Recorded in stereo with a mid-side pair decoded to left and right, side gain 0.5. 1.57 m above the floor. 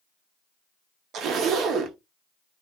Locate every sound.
1.1 s a zipper: 65° right, 0.7 m